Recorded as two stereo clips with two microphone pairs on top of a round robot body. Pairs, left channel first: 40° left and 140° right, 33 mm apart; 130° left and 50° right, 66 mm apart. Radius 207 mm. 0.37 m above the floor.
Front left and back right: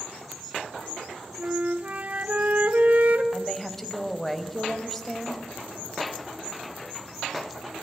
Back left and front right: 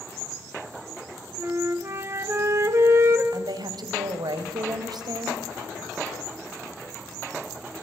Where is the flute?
100° right, 2.5 m.